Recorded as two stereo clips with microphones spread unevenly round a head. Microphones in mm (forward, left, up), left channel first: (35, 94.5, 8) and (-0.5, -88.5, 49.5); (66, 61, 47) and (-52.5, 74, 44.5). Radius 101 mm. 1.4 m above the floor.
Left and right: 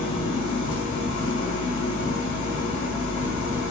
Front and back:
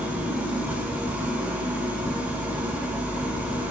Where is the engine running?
100° left, 4 m.